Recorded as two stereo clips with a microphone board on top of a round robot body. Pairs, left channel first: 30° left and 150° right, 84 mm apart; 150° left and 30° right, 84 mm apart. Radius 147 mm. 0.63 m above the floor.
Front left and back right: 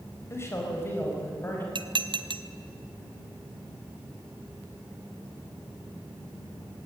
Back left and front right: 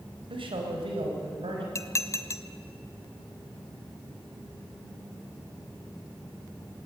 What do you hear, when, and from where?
0.3 s a man speaking: 30° right, 4.5 m; by 1.6 s 35° right, 6 m
1.8 s dishes clattering: 155° right, 1.0 m